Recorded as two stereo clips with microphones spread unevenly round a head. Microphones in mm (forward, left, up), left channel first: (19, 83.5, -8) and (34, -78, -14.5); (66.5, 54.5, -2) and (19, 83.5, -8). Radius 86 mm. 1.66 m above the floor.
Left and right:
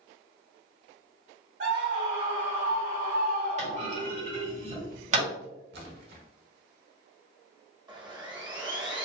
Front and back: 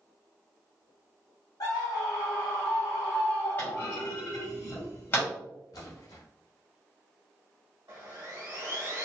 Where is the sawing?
150° right, 1.0 m.